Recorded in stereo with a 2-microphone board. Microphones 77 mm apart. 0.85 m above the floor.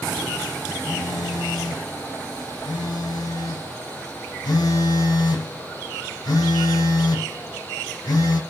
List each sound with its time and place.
0.9 s a phone buzzing: 60° left (ahead or behind), 1.5 m